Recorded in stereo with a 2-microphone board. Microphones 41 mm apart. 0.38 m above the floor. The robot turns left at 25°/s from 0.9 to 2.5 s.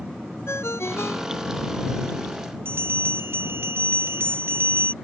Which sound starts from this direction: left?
A ringtone, at 0.5 s.